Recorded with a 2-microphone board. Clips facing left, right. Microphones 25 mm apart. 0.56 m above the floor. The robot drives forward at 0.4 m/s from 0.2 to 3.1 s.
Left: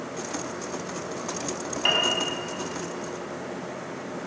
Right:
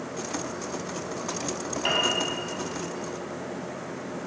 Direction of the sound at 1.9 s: 25° left (ahead or behind).